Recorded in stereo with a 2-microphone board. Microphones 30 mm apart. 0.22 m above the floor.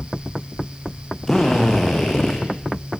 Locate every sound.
1.3 s a drill: 15° left (ahead or behind), 6.5 m